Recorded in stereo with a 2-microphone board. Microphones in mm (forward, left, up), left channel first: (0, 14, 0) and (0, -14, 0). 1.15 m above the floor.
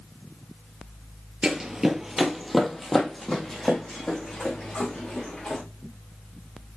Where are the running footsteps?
30° right (ahead or behind), 1.5 m; by 5.6 s 15° left (ahead or behind), 6.5 m.